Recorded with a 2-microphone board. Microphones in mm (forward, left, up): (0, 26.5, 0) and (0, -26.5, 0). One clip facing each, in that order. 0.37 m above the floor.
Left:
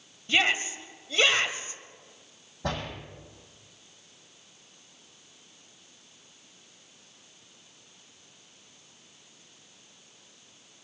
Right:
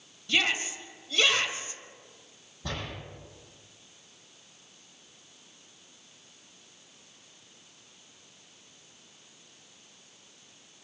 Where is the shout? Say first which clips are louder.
Left 2 dB; 30° left (ahead or behind), 2 m.